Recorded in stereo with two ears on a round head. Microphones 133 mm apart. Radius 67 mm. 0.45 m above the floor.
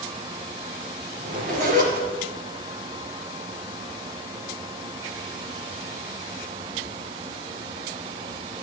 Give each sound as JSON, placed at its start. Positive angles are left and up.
{"t": 1.2, "sound": "a zipper", "side_deg": -55, "distance_m": 3.5}